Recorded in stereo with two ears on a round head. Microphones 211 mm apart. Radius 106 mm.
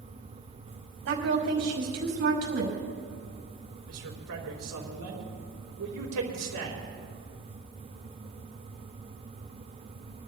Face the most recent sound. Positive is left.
turn(degrees=-75)  # may be behind; listen again after turning